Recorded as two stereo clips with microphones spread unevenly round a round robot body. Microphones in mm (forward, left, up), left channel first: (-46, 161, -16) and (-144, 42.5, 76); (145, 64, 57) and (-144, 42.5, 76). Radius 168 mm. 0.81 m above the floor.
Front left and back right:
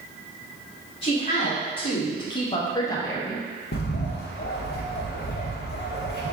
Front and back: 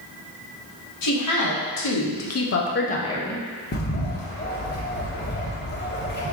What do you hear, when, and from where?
1.0 s a woman speaking: straight ahead, 1.7 m; by 3.4 s 95° left, 0.8 m
3.7 s a bird: 60° left, 1.0 m